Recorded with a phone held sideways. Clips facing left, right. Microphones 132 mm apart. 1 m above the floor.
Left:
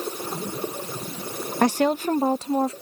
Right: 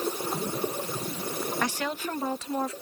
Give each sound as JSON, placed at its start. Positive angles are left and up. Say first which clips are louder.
{"t": 1.6, "sound": "a woman speaking", "louder": "left 16 dB", "side_deg": 50}